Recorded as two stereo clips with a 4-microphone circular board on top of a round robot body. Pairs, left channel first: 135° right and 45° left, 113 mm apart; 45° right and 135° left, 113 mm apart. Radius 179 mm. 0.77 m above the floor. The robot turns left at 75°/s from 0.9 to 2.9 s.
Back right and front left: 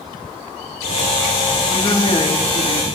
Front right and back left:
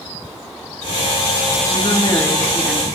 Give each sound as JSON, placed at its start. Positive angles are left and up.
{"t": 1.7, "sound": "a woman speaking", "azimuth_deg": -70, "distance_m": 2.5}